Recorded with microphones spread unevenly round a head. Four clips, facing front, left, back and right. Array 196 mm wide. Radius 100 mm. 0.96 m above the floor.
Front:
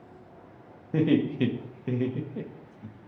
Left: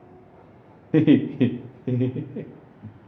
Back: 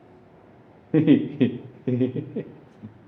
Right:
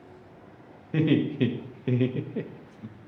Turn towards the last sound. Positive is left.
turn(degrees=-145)